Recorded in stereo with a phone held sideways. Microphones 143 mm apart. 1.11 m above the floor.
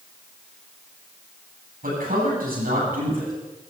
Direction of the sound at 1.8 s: 80° right.